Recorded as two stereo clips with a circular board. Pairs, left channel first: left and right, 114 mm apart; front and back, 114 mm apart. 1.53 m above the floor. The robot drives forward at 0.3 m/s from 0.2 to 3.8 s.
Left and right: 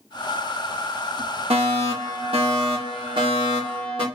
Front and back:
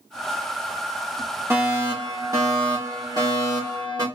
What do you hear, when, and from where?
1.5 s a fire alarm: 115° right, 2.5 m; by 4.0 s 130° right, 3 m